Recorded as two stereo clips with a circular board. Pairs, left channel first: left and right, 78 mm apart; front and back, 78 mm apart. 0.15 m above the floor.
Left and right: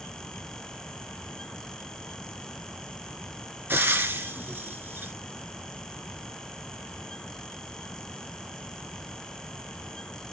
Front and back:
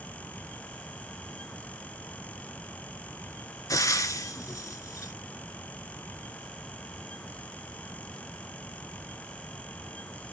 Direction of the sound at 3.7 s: 30° right.